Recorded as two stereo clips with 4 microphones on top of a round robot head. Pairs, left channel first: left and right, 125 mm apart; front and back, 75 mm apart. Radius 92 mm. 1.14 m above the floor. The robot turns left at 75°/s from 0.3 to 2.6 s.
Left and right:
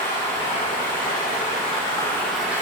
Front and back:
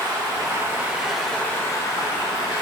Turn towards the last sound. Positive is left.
turn(degrees=-15)